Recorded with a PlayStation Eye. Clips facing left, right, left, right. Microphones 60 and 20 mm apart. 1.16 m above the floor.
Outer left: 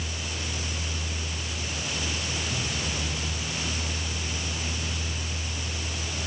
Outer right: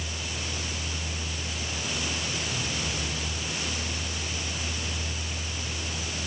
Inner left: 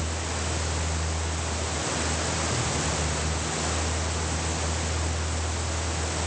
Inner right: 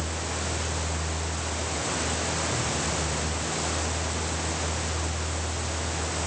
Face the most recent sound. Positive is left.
No sound to turn to.